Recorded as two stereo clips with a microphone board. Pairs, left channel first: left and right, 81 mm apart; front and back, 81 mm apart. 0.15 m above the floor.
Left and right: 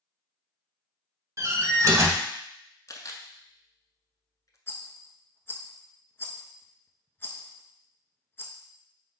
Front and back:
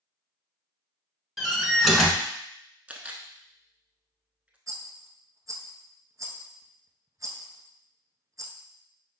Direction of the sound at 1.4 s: 85° right.